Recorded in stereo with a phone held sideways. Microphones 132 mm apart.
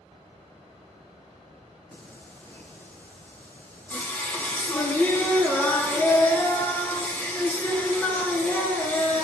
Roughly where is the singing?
Centre.